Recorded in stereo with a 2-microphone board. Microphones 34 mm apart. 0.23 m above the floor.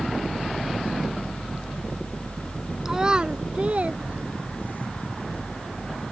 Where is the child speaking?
15° right (ahead or behind); by 4.9 s 50° right (ahead or behind).